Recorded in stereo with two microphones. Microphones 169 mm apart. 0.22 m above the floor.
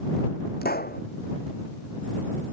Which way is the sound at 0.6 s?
65° left (ahead or behind).